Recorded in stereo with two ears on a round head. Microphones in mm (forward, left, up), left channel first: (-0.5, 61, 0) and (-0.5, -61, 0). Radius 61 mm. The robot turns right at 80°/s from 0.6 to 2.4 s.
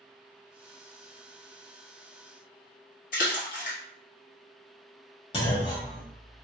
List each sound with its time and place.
3.1 s a splash: 60° left (ahead or behind), 0.9 m
5.3 s a clunk: 40° left (ahead or behind), 1.3 m